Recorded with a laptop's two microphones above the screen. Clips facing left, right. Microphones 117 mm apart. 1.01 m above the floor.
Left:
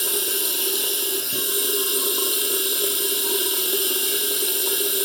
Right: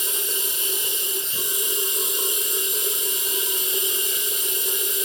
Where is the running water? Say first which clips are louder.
Left 4 dB; 65° left (ahead or behind), 2.5 m.